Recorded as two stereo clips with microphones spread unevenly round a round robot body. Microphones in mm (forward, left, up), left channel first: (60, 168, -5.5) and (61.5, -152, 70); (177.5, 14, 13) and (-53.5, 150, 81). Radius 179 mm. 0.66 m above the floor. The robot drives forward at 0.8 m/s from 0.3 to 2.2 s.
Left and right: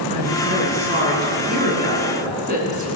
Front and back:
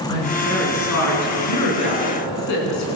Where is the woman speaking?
25° right, 9.5 m; by 2.9 s 30° right, 8 m.